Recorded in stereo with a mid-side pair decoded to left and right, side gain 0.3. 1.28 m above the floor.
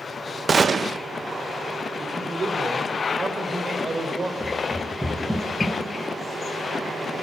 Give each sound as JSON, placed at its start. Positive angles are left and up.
{"t": 0.5, "sound": "a gunshot", "azimuth_deg": -55, "distance_m": 0.8}
{"t": 2.0, "sound": "a man speaking", "azimuth_deg": -50, "distance_m": 4.5}
{"t": 4.4, "sound": "running footsteps", "azimuth_deg": 0, "distance_m": 6.0}